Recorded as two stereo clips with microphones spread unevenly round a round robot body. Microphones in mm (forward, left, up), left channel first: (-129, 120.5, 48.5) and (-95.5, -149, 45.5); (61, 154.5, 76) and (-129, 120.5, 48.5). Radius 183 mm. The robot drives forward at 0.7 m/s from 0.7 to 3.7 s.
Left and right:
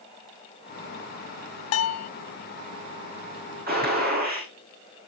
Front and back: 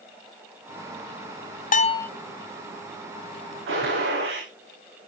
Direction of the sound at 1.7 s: 65° left.